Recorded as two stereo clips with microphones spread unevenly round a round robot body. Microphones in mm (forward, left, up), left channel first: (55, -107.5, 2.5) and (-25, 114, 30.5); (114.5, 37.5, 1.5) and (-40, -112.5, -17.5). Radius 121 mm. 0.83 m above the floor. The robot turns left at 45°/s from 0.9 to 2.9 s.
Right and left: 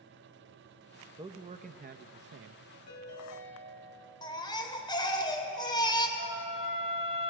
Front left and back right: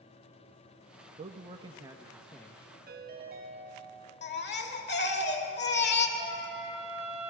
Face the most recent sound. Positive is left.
turn(degrees=-75)